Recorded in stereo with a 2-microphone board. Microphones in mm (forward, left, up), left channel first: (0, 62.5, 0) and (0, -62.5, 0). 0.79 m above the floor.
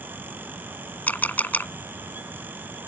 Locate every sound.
1.1 s a camera shutter: 15° left (ahead or behind)